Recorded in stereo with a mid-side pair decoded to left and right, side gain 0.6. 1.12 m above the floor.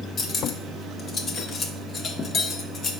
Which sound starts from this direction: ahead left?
Cutlery clinking, at 0.2 s.